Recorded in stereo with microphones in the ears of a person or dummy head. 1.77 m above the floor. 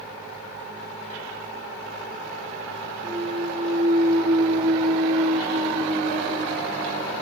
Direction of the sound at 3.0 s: 40° right (ahead or behind).